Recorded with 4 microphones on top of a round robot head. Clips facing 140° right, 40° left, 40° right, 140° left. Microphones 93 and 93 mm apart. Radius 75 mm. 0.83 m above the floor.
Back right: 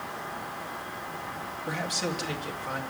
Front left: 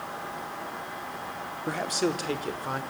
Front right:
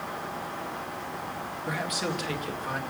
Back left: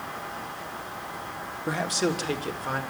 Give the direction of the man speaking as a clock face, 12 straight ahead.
9 o'clock.